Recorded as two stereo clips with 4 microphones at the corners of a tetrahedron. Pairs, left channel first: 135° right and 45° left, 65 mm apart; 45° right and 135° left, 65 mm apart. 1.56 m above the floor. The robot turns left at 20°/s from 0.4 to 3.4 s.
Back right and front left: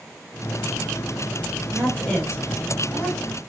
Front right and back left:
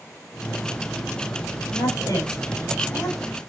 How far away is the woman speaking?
About 6 m.